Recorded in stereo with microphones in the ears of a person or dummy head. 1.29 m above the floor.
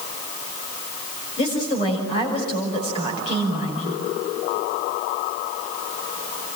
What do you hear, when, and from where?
1.4 s a woman speaking: 35° left (ahead or behind), 7 m